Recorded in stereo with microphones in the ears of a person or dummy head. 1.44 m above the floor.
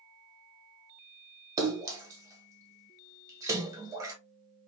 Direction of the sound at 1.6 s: 15° right (ahead or behind).